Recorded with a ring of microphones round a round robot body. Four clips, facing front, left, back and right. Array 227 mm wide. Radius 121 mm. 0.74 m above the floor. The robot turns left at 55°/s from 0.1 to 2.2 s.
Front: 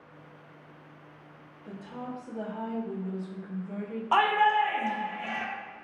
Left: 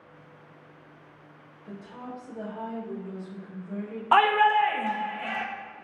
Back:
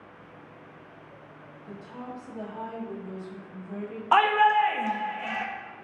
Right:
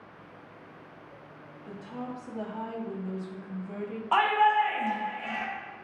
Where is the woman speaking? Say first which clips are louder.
Right 2 dB, front 1 dB; 65° right, 1.3 m; by 4.0 s 95° right, 1.3 m.